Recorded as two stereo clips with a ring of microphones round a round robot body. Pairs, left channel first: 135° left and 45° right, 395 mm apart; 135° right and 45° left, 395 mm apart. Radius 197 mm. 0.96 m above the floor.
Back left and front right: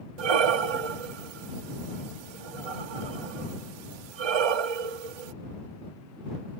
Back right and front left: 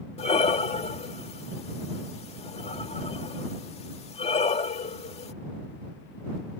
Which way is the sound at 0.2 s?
60° right.